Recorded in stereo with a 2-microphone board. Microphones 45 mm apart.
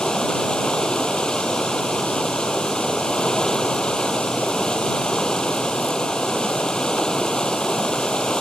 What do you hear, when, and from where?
0.0 s running water: 15° left (ahead or behind)